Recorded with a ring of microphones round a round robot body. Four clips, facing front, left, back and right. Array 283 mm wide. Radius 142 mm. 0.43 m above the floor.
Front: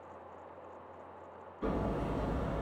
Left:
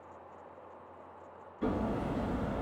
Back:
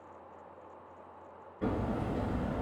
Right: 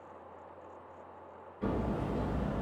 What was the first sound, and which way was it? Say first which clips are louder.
Hammering: left 1 dB, back 1 dB; 170° left.